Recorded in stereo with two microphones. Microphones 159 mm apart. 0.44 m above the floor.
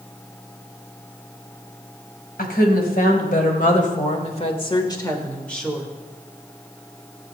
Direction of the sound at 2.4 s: 70° left (ahead or behind).